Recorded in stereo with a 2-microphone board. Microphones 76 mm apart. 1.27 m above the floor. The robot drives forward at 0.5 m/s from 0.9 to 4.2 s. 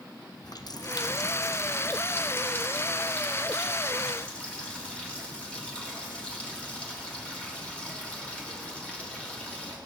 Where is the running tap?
60° left (ahead or behind), 0.6 m; by 9.8 s 15° left (ahead or behind), 2.0 m.